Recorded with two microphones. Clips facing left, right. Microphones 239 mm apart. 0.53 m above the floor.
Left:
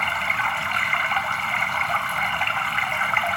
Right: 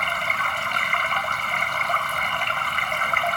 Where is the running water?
45° right (ahead or behind), 1.6 m.